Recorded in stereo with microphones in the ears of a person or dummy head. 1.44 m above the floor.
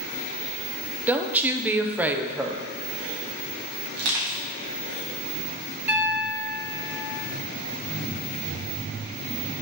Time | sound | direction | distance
1.1 | a woman speaking | 10° right (ahead or behind) | 0.5 m
3.9 | crushing | 60° right (ahead or behind) | 1.4 m
5.9 | a piano | 5° right (ahead or behind) | 1.0 m